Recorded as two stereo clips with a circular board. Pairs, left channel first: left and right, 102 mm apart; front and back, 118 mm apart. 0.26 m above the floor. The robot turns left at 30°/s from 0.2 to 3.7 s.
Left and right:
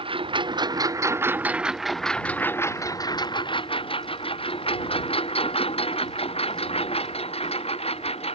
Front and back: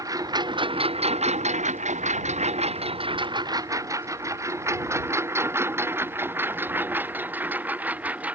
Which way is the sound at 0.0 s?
120° right.